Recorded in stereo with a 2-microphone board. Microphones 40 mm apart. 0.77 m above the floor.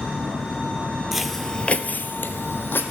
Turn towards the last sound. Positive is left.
turn(degrees=60)  # may be behind; listen again after turning